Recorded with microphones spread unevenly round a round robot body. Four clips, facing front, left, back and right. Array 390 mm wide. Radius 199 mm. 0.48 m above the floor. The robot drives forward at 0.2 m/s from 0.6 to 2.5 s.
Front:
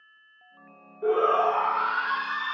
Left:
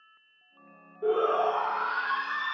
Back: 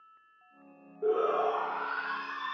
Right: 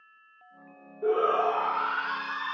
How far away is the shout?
About 1.0 m.